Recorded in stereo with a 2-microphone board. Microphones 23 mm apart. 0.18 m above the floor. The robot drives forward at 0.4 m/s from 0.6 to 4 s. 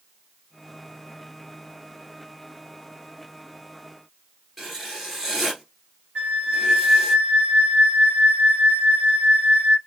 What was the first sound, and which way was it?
Writing, 10° right (ahead or behind).